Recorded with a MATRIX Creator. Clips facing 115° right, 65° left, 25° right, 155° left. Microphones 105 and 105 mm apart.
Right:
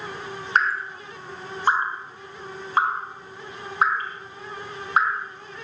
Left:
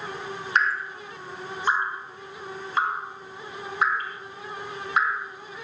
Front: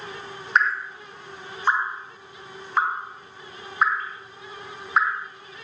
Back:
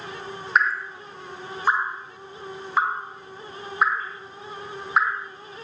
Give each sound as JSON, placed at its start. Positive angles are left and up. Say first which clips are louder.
{"t": 0.6, "sound": "dripping", "louder": "right 2 dB, even", "azimuth_deg": -115, "distance_m": 0.5}